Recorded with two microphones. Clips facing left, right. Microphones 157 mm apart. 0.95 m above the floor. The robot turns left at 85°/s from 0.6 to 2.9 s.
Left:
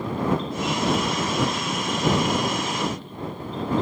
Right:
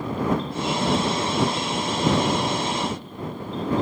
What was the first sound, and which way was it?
Only background noise.